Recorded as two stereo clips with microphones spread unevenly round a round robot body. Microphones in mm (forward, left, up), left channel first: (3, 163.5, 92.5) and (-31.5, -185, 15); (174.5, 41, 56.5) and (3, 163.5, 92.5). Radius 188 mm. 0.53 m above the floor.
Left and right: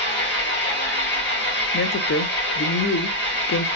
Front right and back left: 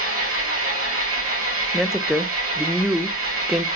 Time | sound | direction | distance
0.0 | an engine running | 145° left | 1.9 m
1.7 | a woman speaking | 40° left | 0.7 m